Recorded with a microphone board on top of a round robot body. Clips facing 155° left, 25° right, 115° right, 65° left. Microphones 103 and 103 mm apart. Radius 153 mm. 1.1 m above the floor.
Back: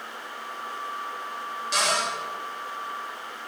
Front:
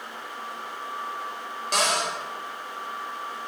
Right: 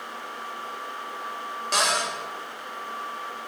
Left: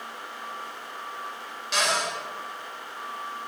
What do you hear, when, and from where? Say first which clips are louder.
1.7 s a cupboard door: front 1 dB, right 1 dB; 65° right, 3 m